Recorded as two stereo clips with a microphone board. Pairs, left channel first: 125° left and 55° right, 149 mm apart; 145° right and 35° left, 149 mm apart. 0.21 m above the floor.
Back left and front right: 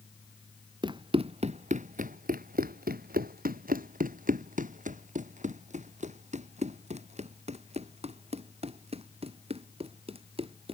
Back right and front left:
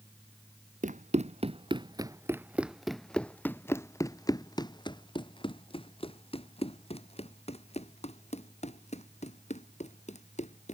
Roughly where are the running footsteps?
Ahead.